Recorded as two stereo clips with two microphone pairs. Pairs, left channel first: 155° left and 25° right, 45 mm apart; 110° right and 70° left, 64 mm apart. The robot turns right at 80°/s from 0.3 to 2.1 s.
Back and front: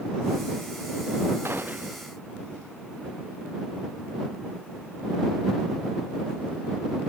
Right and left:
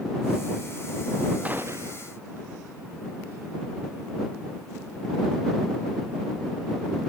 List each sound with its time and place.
1.4 s a gunshot: 5° left; by 2.1 s 55° left